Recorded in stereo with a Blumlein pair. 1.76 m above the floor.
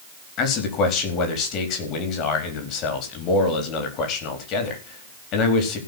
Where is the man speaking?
35° left, 4.5 m.